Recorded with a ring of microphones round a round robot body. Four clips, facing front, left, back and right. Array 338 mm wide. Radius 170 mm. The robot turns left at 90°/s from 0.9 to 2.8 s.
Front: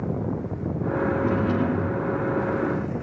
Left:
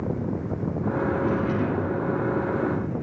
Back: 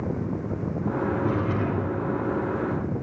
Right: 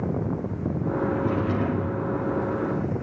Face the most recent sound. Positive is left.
turn(degrees=-110)